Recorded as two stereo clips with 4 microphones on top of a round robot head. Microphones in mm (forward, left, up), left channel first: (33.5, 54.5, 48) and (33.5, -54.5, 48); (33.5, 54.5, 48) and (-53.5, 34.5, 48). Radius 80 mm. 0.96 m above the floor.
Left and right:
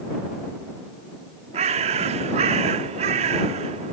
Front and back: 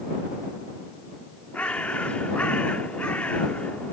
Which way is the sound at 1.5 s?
70° right.